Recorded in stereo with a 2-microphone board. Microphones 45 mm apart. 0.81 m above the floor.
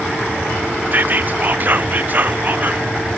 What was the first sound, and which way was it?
Whispering, 40° right (ahead or behind).